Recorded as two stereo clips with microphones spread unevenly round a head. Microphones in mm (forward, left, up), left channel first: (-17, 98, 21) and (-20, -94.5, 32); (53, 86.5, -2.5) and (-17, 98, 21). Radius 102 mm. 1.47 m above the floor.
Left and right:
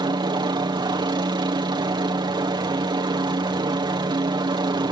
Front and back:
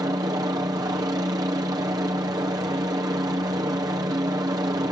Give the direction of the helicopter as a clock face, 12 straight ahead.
5 o'clock.